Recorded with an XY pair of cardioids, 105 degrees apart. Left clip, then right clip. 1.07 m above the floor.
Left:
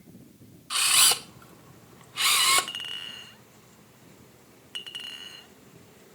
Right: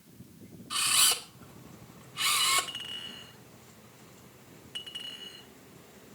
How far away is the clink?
About 1.8 m.